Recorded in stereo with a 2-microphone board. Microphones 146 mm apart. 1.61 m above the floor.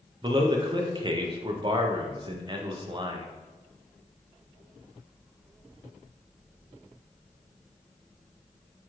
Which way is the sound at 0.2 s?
35° right (ahead or behind).